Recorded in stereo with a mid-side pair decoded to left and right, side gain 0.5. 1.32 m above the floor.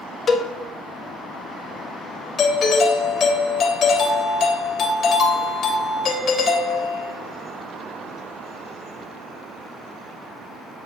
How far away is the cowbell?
About 1.6 m.